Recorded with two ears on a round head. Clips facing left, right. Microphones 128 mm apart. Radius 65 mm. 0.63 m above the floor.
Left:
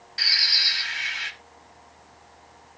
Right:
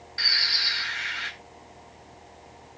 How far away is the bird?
About 1.9 m.